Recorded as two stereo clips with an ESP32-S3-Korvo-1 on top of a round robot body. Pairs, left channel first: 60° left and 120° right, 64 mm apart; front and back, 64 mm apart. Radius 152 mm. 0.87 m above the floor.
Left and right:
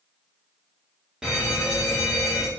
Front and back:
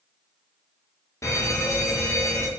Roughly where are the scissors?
No scissors in this recording.